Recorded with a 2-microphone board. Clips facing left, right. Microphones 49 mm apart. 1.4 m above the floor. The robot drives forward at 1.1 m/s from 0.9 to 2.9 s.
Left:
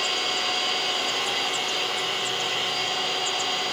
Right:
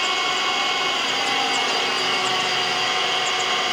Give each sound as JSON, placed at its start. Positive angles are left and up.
{"t": 0.0, "sound": "an engine running", "side_deg": -50, "distance_m": 2.5}